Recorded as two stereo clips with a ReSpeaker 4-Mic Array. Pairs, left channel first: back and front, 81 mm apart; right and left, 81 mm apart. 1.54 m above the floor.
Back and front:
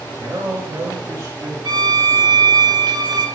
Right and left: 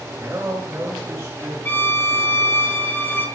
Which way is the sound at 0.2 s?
25° left.